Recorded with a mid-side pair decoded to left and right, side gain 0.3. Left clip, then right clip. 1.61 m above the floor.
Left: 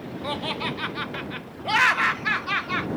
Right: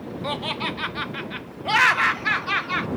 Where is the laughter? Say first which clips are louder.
Right 1 dB; 20° right.